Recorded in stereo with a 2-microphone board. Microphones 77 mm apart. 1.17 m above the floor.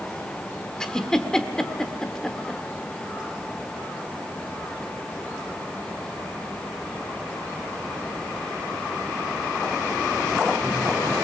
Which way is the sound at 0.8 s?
10° left (ahead or behind).